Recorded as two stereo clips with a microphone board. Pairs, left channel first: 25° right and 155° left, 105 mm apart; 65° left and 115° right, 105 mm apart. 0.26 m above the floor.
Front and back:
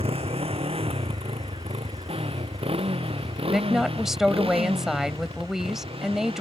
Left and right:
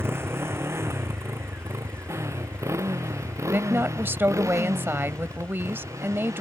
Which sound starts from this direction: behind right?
A woman speaking, at 3.5 s.